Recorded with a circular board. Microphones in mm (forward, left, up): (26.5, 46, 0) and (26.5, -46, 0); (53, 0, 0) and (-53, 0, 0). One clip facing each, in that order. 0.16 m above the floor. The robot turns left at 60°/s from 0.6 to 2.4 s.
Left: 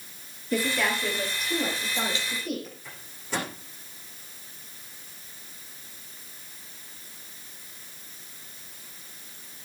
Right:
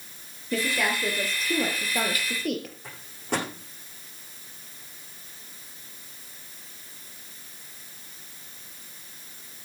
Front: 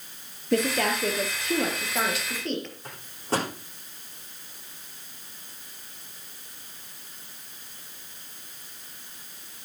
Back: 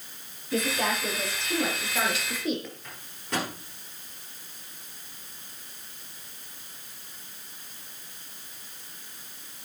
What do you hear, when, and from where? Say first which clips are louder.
0.5 s a woman speaking: even, front 3 dB; 10° left, 4 m; by 2.7 s 100° right, 4 m
2.8 s a microwave: right 6 dB, front 8 dB; 55° right, 10 m